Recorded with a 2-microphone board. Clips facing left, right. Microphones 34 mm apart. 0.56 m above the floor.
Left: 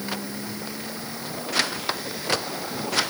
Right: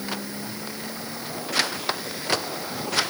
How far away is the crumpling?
No crumpling in this recording.